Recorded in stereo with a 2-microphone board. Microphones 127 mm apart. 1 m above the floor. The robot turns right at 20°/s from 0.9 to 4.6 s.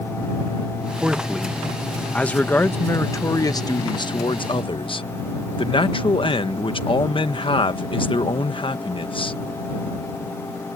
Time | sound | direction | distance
1.0 | a man speaking | 15° right | ?